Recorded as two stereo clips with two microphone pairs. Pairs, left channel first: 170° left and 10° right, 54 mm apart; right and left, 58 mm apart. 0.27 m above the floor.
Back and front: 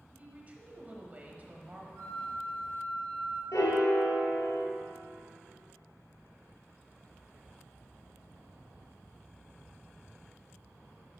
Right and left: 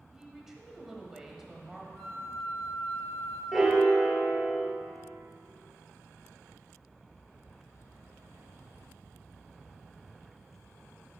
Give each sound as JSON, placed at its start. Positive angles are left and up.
{"t": 0.1, "sound": "a woman speaking", "azimuth_deg": 10, "distance_m": 1.2}
{"t": 1.9, "sound": "a flute", "azimuth_deg": -10, "distance_m": 3.0}
{"t": 3.5, "sound": "a piano", "azimuth_deg": 170, "distance_m": 1.3}